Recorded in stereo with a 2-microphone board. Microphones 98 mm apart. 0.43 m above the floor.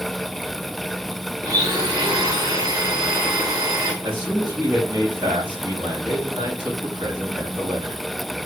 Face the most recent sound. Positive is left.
turn(degrees=-45)  # may be behind; listen again after turning